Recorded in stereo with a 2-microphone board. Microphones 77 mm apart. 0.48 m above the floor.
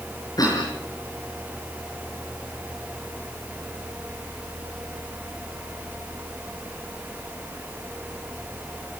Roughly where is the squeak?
No squeak in this recording.